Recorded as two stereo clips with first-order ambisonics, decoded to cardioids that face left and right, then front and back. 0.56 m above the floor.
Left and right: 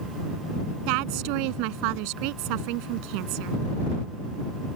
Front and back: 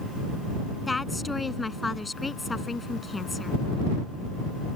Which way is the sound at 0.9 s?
80° right.